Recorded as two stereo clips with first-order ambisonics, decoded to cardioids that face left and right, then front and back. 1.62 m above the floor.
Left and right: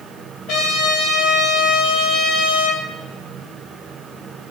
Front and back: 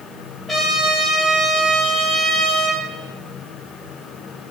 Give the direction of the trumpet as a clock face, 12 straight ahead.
9 o'clock.